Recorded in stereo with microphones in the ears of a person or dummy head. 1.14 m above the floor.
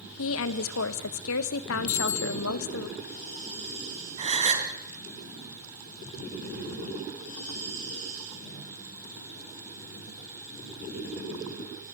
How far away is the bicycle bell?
About 5 m.